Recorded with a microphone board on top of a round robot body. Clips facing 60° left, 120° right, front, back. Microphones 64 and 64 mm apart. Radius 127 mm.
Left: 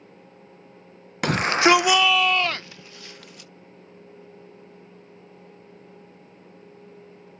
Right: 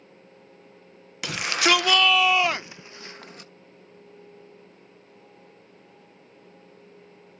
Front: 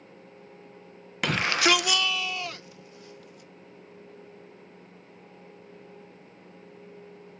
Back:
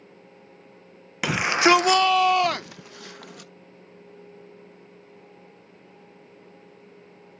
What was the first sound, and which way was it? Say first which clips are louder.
A shout: left 5 dB, back 5 dB; 95° left.